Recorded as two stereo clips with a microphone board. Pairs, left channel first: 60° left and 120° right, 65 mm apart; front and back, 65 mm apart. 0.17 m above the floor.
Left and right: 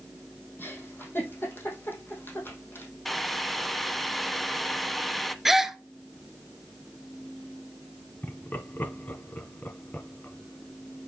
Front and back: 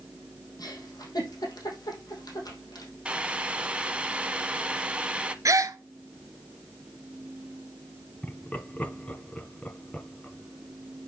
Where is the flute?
I don't hear a flute.